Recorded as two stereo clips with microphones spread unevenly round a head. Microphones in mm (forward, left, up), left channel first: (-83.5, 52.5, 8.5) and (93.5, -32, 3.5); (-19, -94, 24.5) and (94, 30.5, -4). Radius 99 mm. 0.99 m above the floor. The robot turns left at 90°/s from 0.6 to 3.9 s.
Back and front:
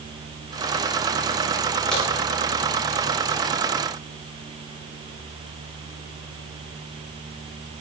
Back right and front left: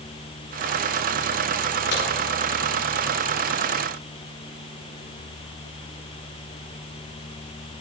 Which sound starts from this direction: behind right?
A crack, at 1.9 s.